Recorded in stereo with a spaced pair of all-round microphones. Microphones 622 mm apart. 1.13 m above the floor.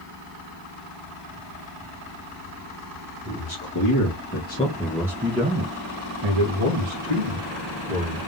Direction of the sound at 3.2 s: 40° left (ahead or behind).